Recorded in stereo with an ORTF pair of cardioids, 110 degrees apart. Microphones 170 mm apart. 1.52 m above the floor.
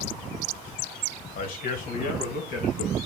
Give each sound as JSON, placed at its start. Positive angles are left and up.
{"t": 1.4, "sound": "a man speaking", "azimuth_deg": 55, "distance_m": 1.2}